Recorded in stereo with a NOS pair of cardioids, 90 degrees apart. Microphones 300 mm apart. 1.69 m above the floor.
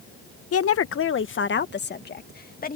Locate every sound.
0.5 s a woman speaking: 55° left; by 2.8 s 30° left